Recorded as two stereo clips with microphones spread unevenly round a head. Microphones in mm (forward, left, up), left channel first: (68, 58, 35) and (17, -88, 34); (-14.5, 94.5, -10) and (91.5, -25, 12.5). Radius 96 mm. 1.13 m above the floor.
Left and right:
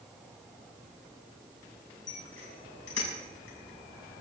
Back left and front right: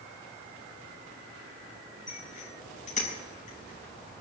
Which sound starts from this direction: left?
A bicycle bell, at 2.1 s.